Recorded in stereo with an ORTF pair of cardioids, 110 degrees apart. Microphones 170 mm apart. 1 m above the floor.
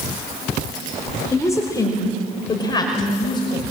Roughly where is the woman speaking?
Ahead.